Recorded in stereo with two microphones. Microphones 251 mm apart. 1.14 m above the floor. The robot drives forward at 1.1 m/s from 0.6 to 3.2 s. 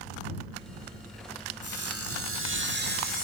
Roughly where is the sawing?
Right.